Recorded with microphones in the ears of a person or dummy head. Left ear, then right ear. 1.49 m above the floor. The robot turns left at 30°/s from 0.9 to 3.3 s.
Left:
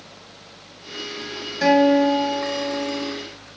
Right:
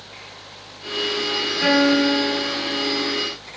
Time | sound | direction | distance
1.6 | a guitar | 105° left | 1.3 m